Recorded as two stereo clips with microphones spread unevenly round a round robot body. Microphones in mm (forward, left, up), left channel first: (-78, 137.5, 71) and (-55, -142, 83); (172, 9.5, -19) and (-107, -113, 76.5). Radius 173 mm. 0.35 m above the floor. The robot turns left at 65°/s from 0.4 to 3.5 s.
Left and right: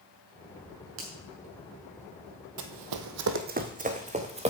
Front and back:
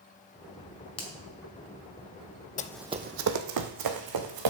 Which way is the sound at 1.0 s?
40° right.